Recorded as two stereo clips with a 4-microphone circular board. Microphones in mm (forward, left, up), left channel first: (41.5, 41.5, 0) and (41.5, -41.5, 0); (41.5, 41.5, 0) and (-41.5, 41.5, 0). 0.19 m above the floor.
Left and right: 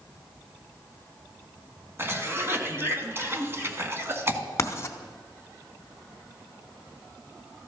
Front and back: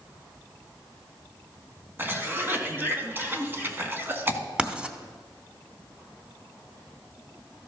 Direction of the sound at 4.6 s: 105° left.